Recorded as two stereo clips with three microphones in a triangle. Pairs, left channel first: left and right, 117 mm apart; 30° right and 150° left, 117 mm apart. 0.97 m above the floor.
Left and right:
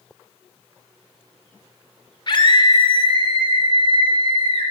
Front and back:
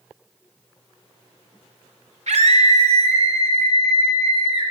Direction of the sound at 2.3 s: 135° left.